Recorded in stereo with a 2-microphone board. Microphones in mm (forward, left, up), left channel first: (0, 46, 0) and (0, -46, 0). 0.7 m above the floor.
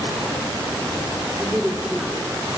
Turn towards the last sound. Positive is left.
turn(degrees=-15)  # may be behind; listen again after turning